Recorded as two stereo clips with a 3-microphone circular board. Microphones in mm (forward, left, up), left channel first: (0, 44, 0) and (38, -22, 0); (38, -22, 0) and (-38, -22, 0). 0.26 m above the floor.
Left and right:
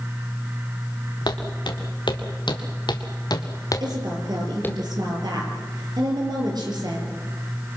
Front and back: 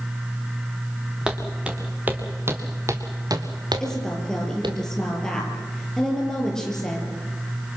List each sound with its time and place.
1.3 s footsteps: 100° left, 3.5 m; by 4.8 s 175° right, 2.5 m
3.8 s a woman speaking: 80° right, 7 m